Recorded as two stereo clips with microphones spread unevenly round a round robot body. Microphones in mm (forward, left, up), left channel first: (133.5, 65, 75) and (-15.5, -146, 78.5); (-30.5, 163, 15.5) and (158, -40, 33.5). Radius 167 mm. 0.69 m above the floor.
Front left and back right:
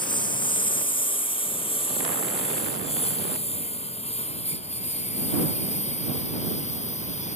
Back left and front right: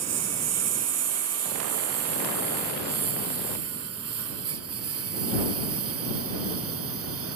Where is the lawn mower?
20° right; by 7.4 s 10° right.